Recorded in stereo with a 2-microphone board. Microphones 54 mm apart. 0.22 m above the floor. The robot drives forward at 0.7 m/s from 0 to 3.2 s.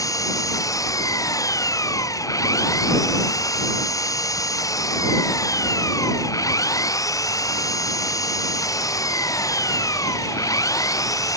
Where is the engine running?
85° left; by 11.4 s 90° left.